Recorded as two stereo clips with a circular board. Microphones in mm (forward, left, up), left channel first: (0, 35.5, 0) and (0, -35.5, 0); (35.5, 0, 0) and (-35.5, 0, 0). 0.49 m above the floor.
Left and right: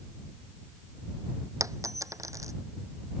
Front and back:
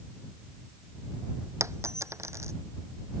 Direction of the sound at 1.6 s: 130° right.